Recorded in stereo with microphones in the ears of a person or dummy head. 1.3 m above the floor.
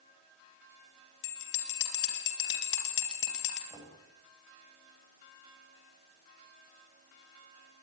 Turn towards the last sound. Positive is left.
turn(degrees=-25)  # may be behind; listen again after turning